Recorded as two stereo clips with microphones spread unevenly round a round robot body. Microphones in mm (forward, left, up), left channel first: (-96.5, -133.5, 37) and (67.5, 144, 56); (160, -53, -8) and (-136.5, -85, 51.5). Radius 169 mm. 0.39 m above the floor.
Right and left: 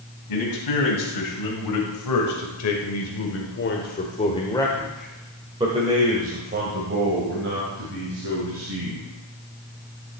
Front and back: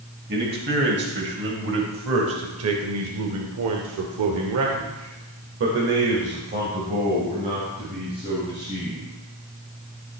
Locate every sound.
0.3 s a man speaking: 115° right, 2.5 m; by 9.1 s 105° left, 3 m